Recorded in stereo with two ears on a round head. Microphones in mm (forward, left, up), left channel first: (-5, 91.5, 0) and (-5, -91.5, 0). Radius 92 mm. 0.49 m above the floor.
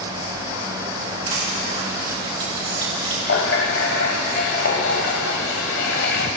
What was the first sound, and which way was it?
Crushing, 30° right (ahead or behind).